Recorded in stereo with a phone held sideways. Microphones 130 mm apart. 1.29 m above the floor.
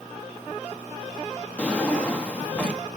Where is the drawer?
10° left (ahead or behind), 0.8 m.